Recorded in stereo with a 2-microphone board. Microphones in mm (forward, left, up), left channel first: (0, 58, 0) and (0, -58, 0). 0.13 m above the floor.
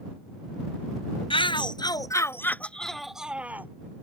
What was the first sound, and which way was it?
A shout, 50° left (ahead or behind).